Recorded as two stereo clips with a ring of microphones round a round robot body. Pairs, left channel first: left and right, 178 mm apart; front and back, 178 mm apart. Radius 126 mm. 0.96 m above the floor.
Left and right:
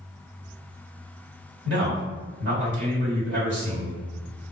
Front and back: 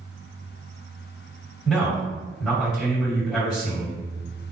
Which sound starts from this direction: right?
A man speaking, at 1.6 s.